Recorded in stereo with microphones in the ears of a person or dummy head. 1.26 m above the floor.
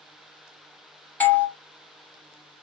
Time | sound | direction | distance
1.2 | a doorbell | 10° left (ahead or behind) | 0.5 m